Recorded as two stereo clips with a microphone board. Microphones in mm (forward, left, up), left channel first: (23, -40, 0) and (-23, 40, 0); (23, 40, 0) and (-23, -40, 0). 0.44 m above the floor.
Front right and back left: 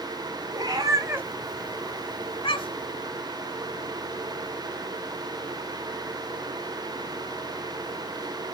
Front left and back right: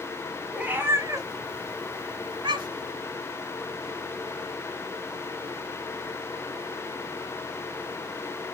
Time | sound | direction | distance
0.5 | a cat meowing | 165° left | 1.4 m